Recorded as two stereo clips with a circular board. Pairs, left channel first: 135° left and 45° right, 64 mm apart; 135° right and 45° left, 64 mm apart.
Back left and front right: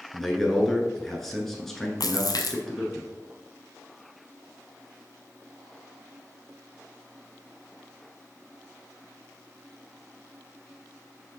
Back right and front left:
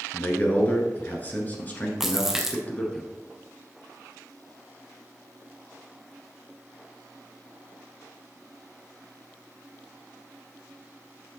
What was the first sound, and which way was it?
A man speaking, 145° right.